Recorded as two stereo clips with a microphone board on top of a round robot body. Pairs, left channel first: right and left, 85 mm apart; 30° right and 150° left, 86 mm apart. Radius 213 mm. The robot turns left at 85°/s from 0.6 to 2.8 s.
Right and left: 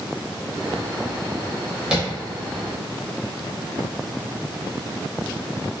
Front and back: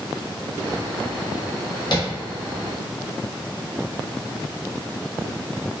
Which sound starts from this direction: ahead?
Tapping, at 1.9 s.